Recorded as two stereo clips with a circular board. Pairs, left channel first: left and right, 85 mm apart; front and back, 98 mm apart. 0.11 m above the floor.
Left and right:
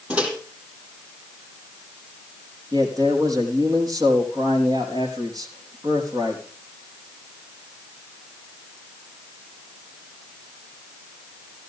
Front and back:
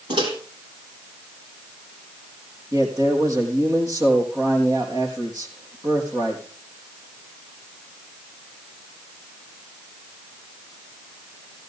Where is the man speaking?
125° right, 5 m.